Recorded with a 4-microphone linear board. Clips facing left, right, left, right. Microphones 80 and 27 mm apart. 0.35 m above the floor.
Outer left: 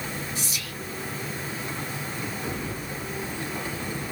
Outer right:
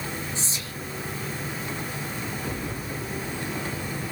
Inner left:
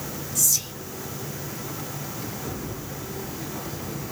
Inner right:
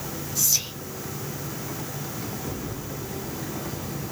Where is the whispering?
30° right (ahead or behind), 1.0 m.